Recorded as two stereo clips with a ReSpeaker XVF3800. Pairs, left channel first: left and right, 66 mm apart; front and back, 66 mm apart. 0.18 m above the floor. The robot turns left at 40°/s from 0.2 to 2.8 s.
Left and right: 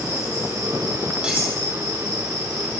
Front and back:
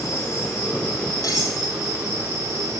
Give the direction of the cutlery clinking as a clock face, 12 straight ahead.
1 o'clock.